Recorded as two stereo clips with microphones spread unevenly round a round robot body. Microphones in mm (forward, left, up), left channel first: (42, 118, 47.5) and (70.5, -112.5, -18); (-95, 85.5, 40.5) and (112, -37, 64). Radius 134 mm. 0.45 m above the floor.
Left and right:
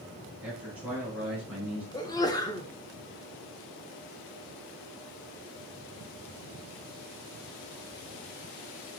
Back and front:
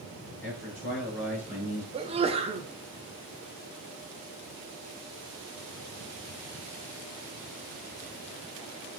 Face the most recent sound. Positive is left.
turn(degrees=10)